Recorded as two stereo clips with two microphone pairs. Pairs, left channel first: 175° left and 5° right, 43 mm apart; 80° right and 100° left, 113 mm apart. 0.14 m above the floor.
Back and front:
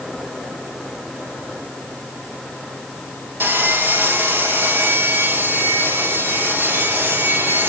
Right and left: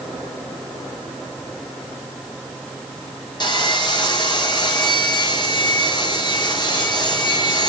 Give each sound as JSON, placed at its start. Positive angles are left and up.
{"t": 3.4, "sound": "sawing", "azimuth_deg": -35, "distance_m": 2.0}